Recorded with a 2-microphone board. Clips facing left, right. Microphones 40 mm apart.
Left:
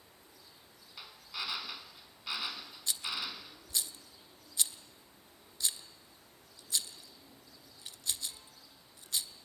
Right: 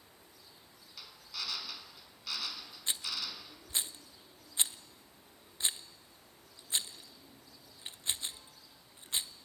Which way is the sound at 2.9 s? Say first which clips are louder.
Left 1 dB; 35° right (ahead or behind).